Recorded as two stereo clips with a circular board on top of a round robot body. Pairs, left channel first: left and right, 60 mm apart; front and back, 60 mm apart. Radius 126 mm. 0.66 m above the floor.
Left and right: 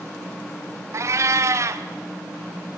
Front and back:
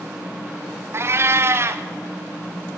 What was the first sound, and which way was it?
A cat meowing, 130° right.